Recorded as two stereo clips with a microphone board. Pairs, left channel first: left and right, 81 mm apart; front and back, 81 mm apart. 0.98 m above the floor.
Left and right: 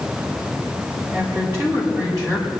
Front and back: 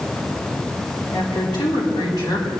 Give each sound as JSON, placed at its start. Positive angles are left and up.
{"t": 1.1, "sound": "a woman speaking", "azimuth_deg": -35, "distance_m": 6.5}